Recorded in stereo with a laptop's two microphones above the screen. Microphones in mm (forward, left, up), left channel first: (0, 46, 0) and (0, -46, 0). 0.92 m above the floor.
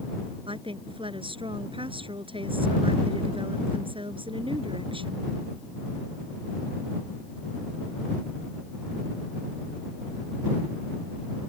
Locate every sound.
0.5 s a woman speaking: 75° right (ahead or behind)